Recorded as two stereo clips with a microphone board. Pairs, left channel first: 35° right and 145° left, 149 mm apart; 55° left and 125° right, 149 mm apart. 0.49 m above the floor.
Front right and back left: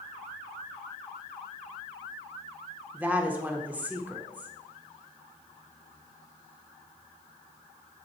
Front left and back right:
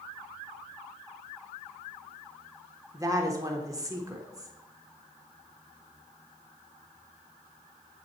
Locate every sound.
2.9 s a woman speaking: 150° right, 0.8 m